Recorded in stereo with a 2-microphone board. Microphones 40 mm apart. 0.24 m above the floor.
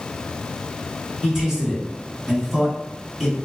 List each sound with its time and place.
1.2 s a man speaking: 15° right (ahead or behind), 1.6 m